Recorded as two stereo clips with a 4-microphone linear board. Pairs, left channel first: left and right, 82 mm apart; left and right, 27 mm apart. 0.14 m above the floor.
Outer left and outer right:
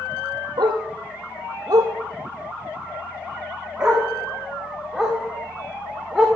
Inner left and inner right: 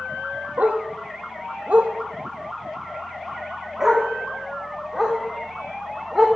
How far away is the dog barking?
About 1.4 m.